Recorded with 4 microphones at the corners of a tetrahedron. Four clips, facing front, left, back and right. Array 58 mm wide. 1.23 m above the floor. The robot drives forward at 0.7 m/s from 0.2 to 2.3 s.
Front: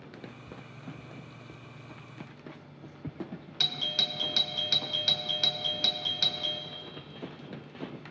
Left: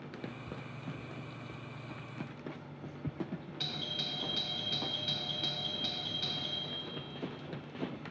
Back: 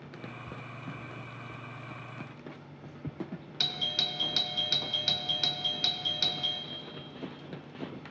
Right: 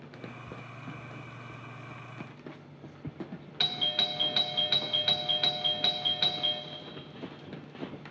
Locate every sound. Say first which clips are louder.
3.6 s a doorbell: right 10 dB, front 1 dB; 90° right, 0.6 m